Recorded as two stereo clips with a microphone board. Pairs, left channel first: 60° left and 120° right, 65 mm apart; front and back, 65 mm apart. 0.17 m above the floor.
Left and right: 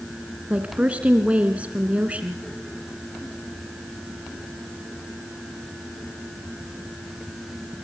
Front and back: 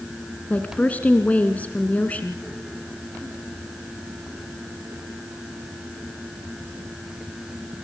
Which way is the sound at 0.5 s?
60° right.